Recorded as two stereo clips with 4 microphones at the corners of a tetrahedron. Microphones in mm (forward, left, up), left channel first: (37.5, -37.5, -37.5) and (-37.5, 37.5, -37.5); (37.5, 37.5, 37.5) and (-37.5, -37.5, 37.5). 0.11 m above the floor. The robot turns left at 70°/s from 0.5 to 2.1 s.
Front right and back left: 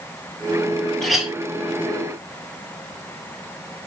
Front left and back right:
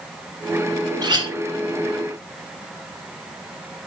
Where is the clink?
130° right, 1.3 m; by 1.3 s 150° right, 1.3 m.